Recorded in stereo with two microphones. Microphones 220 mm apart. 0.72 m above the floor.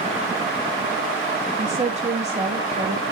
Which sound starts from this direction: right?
A woman speaking, at 1.6 s.